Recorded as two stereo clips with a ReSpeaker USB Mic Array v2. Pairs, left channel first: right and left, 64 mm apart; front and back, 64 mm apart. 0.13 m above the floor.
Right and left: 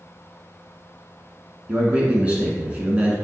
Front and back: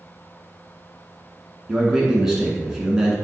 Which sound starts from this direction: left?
A man speaking, at 1.7 s.